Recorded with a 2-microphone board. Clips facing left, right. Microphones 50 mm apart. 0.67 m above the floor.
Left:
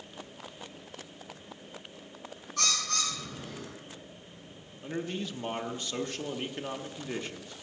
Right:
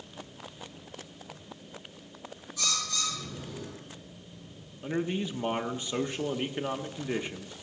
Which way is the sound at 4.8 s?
15° right (ahead or behind).